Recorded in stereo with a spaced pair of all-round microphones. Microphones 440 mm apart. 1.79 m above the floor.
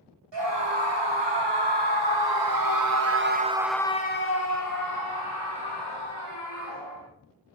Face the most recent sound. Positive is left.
turn(degrees=75)  # may be behind; listen again after turning